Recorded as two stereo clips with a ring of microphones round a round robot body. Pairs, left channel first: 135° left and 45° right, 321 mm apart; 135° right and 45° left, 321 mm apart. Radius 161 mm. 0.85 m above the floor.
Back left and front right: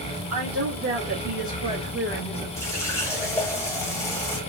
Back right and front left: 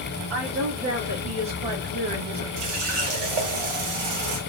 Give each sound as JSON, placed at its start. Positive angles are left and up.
{"t": 0.3, "sound": "a woman speaking", "azimuth_deg": 0, "distance_m": 2.0}
{"t": 2.6, "sound": "a running tap", "azimuth_deg": 55, "distance_m": 1.0}